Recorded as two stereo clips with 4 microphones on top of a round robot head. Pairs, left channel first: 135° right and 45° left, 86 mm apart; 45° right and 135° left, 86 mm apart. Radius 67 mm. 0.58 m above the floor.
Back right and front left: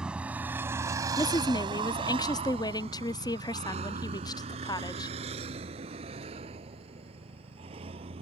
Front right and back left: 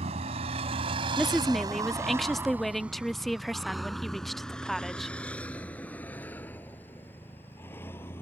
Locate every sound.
0.0 s a vehicle: 125° left; by 8.2 s 20° left
1.2 s a woman speaking: 135° right